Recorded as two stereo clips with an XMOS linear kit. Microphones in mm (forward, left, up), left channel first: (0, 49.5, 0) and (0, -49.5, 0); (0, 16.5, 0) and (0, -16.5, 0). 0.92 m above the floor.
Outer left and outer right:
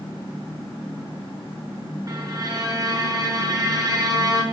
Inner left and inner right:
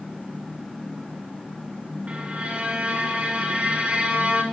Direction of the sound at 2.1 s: 40° right (ahead or behind).